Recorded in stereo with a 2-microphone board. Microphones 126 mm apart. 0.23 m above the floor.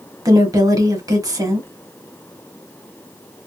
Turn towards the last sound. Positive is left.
turn(degrees=-30)  # may be behind; listen again after turning